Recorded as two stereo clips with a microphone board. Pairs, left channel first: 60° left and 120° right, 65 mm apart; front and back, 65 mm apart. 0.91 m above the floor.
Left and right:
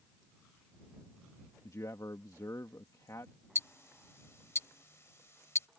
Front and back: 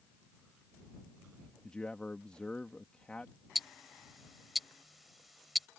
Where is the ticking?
90° left.